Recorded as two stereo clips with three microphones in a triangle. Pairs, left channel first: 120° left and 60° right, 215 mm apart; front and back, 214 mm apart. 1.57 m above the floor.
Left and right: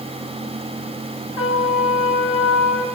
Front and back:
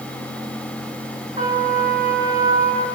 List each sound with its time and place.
1.4 s a trumpet: 115° left, 9.5 m